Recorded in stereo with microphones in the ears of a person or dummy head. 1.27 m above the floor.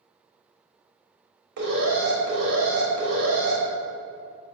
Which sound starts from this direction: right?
An alarm, at 1.6 s.